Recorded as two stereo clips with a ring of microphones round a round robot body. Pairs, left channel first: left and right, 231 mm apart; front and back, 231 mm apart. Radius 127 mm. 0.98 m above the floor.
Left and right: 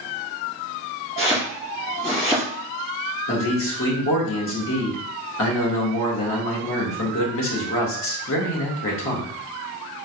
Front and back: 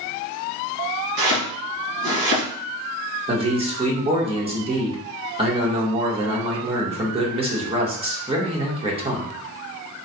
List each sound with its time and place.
1.2 s chopping: 155° left, 1.9 m
3.3 s a man speaking: 115° left, 1.4 m